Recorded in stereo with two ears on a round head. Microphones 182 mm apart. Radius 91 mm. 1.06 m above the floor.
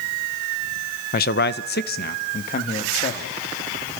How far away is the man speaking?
About 0.9 m.